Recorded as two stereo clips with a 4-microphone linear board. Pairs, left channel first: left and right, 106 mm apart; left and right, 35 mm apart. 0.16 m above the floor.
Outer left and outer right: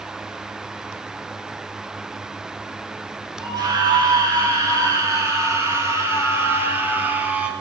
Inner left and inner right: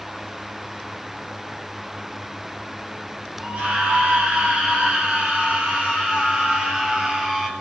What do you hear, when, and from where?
3.4 s a scream: 40° right (ahead or behind), 5 m; by 7.5 s 15° right (ahead or behind), 3 m